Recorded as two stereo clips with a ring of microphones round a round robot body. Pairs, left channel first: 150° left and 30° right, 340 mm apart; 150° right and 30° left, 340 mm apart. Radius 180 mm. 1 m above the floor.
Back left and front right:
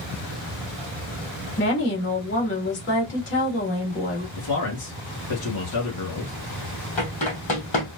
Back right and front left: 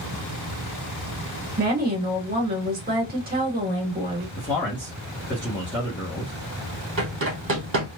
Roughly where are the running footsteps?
Left.